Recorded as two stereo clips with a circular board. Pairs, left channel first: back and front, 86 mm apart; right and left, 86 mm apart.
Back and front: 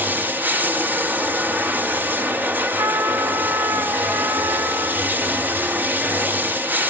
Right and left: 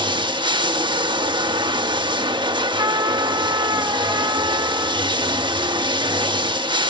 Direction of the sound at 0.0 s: 70° left.